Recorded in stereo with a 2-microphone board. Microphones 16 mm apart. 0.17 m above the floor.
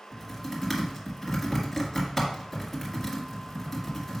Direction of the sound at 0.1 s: Centre (ahead or behind).